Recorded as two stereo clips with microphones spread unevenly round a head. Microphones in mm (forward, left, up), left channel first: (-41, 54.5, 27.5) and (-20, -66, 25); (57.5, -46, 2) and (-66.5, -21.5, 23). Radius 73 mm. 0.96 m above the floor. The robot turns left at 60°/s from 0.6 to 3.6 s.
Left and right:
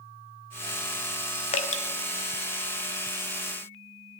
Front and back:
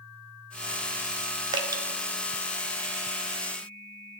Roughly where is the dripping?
Behind left.